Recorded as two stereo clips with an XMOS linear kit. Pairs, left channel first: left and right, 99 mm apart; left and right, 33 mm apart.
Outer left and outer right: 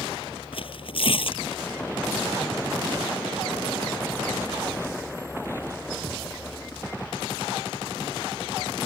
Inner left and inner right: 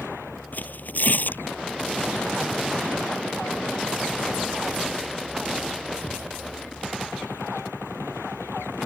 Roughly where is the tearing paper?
Left.